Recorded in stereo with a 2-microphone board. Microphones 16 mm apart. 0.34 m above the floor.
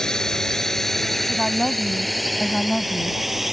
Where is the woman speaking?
20° left (ahead or behind).